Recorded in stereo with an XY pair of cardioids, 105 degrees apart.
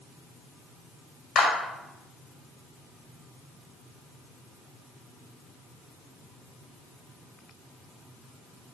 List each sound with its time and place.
1.4 s a clap: 65° left, 1.7 m